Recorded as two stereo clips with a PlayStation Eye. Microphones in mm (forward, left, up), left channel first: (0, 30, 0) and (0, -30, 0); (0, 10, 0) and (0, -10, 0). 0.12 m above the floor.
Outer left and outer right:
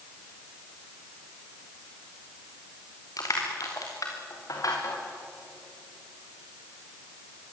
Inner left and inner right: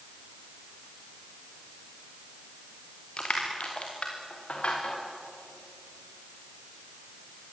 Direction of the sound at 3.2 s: 70° left (ahead or behind).